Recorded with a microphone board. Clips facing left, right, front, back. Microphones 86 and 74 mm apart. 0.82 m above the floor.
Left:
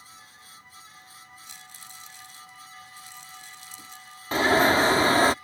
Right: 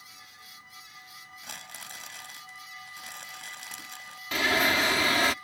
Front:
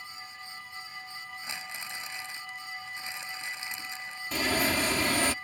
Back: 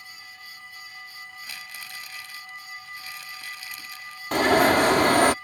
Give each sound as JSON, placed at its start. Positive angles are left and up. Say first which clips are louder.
{"t": 1.4, "sound": "crumpling", "louder": "right 3 dB, front 2 dB", "azimuth_deg": -70}
{"t": 4.3, "sound": "an alarm", "louder": "left 6 dB, back 10 dB", "azimuth_deg": 150}